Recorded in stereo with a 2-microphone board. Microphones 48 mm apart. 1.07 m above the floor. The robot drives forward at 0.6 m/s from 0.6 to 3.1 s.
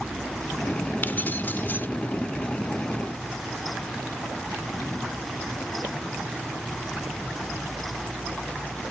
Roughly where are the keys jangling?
Left.